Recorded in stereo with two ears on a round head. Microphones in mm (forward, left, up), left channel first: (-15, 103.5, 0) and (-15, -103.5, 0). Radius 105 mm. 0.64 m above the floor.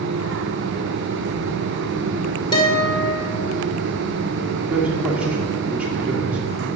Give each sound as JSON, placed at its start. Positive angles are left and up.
{"t": 2.5, "sound": "a guitar", "side_deg": 20, "distance_m": 1.9}
{"t": 4.7, "sound": "a man speaking", "side_deg": -5, "distance_m": 1.7}